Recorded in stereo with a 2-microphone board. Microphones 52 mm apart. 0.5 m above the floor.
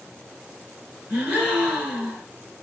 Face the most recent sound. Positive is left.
turn(degrees=-40)  # may be behind; listen again after turning